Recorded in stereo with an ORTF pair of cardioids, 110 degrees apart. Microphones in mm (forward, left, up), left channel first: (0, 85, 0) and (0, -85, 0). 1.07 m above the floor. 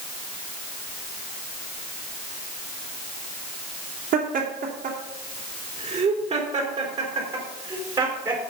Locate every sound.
4.1 s laughter: 50° right, 2.5 m; by 8.4 s 15° right, 4 m